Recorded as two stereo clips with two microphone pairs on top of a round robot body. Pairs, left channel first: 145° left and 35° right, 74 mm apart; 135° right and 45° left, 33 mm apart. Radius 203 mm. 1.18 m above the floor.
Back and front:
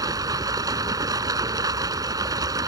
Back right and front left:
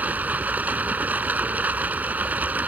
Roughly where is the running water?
Ahead.